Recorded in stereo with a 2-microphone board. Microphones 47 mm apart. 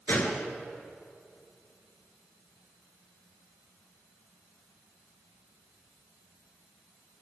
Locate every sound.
0.1 s a gunshot: 45° left (ahead or behind), 3 m